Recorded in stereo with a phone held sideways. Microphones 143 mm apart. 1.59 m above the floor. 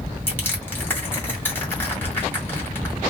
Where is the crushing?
15° left (ahead or behind), 1.7 m.